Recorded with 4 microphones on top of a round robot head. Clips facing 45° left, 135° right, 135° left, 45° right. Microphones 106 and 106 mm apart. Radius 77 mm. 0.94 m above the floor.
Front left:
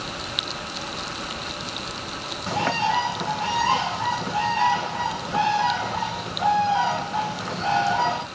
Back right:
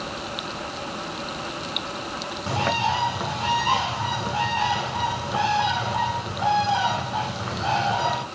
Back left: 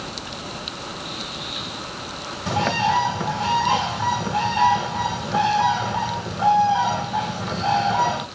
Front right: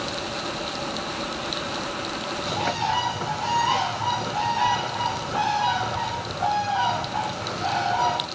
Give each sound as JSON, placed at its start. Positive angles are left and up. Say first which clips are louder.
{"t": 2.5, "sound": "a bird", "louder": "front left 1 dB, back left 5 dB", "azimuth_deg": 155, "distance_m": 1.7}